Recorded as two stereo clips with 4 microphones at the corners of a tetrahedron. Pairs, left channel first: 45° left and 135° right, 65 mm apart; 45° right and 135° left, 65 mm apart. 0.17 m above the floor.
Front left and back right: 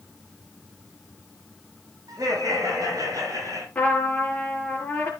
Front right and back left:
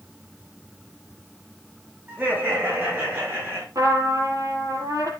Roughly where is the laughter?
Behind.